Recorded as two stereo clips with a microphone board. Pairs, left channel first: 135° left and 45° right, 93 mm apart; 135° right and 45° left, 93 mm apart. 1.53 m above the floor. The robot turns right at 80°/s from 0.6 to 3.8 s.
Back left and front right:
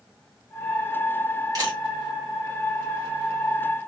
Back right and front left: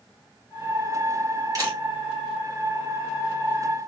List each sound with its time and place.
1.6 s a camera shutter: 5° right, 2 m; by 1.8 s 15° left, 2 m